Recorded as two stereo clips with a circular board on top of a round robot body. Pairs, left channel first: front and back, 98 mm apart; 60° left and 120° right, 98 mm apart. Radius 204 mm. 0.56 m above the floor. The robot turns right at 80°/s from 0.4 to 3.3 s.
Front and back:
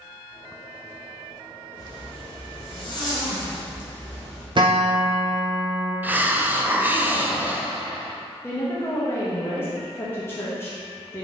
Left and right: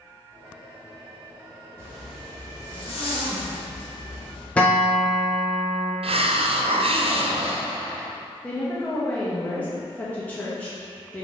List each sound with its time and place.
1.8 s a zipper: 55° right, 1.8 m; by 4.5 s 70° left, 1.8 m
4.6 s a guitar: 140° left, 0.9 m
6.0 s a hiss: 110° right, 0.5 m
8.4 s a woman speaking: 10° left, 1.3 m